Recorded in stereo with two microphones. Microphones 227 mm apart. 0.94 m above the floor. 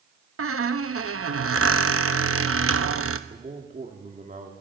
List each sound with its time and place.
0.4 s a squeak: 75° right (ahead or behind), 0.9 m
3.3 s a man speaking: 35° right (ahead or behind), 2 m